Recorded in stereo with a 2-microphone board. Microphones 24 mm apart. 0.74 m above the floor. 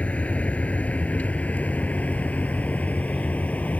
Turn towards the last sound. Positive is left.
turn(degrees=90)